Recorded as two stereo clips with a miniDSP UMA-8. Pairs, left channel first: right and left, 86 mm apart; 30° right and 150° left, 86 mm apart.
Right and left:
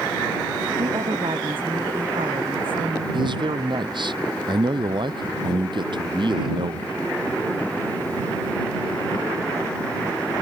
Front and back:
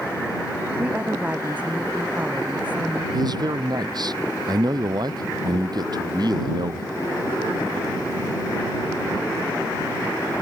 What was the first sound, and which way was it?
A woman speaking, 80° left.